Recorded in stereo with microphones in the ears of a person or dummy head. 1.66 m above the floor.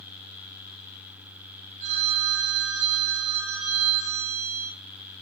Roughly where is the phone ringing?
Right.